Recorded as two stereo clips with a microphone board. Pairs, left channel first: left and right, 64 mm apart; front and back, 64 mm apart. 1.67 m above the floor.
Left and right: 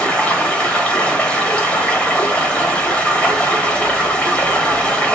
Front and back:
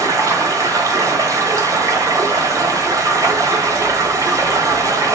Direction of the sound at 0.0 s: 160° left.